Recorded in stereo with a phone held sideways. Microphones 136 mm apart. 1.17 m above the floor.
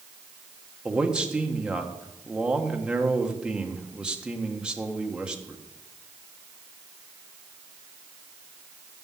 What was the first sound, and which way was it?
A man speaking, 5° right (ahead or behind).